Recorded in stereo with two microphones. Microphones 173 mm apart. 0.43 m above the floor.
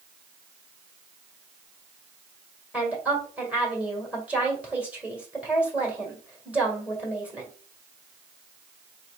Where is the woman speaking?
10° right (ahead or behind), 1.7 m.